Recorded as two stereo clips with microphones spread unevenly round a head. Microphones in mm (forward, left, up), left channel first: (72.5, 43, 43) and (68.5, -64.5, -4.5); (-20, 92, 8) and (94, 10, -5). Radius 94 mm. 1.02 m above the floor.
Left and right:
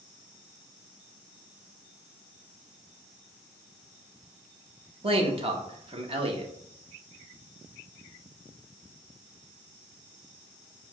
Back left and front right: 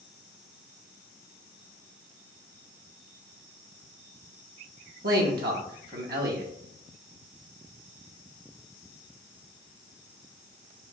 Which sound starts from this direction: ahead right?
A man speaking, at 5.0 s.